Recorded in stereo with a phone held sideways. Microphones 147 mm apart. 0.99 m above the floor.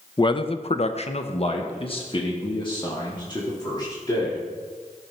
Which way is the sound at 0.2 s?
30° left (ahead or behind).